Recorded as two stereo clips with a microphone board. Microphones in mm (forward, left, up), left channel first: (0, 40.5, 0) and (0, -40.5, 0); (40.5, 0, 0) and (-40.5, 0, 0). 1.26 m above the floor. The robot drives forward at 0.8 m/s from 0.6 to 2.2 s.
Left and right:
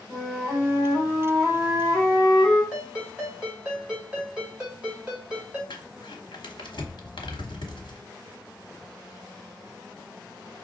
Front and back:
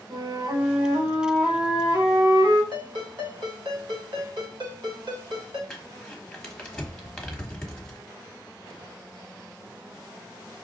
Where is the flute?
175° left, 1.7 m; by 2.6 s straight behind, 3 m.